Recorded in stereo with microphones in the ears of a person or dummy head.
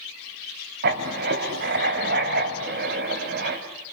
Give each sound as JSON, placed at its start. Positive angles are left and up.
{"t": 0.8, "sound": "writing", "side_deg": -55, "distance_m": 2.5}